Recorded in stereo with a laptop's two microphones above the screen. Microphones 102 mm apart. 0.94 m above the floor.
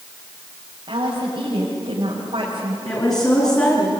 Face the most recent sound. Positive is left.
turn(degrees=40)  # may be behind; listen again after turning